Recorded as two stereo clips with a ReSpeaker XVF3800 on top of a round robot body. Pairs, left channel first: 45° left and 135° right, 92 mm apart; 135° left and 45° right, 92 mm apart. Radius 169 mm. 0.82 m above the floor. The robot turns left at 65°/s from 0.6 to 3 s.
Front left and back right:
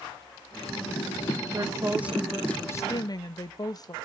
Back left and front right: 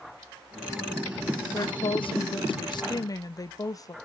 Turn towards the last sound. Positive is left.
turn(degrees=90)